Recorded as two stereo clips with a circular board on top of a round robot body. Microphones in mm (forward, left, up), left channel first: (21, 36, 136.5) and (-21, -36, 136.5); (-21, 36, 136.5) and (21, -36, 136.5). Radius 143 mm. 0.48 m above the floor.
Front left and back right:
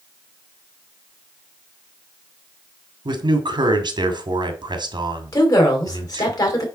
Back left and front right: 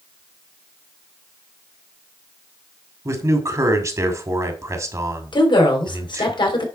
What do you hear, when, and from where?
3.0 s a man speaking: 105° right, 2 m
5.3 s a woman speaking: 105° left, 4 m